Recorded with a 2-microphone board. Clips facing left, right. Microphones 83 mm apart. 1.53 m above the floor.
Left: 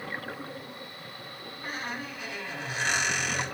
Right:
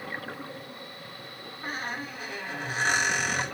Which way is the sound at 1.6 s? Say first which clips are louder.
Right 2 dB; 40° right (ahead or behind).